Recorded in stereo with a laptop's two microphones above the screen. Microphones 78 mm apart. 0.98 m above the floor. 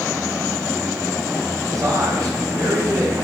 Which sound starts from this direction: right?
A man speaking, at 1.7 s.